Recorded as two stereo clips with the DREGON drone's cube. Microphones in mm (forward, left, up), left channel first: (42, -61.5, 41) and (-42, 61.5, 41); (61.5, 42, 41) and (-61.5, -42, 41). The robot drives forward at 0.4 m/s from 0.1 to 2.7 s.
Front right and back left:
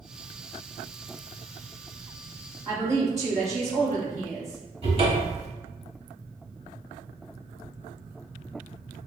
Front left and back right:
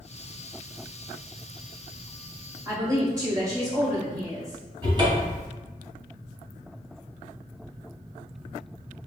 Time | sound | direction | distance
2.6 | a woman speaking | 175° left | 1.4 m
4.8 | a cupboard door | 160° left | 0.9 m